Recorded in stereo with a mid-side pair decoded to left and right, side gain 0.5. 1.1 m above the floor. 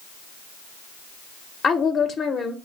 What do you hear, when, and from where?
1.6 s a woman speaking: 45° left, 0.7 m